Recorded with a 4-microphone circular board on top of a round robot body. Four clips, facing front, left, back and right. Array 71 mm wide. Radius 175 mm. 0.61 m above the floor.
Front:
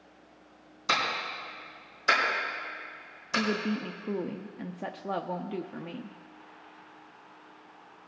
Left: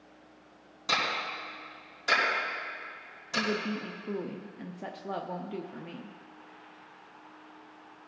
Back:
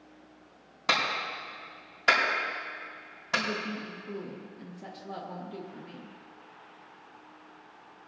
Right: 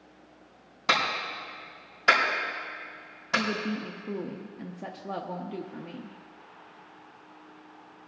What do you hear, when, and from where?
0.9 s a clap: 150° right, 5 m
3.4 s a woman speaking: 5° left, 0.8 m